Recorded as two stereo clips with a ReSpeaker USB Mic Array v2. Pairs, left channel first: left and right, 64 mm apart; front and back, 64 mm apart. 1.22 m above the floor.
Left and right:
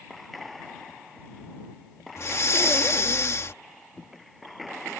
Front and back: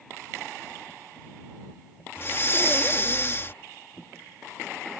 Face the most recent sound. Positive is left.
turn(degrees=50)